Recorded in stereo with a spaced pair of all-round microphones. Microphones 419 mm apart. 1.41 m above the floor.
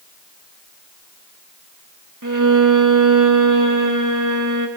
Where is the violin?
45° right (ahead or behind), 1.5 m.